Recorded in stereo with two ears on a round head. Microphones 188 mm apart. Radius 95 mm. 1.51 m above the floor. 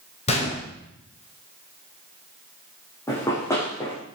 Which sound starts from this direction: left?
A gunshot, at 0.3 s.